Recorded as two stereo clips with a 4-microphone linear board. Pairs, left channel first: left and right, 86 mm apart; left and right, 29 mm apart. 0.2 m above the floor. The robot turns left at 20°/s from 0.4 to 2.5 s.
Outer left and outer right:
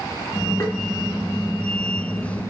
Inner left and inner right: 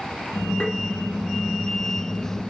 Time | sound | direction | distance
0.6 | tapping | 35° left (ahead or behind) | 1.0 m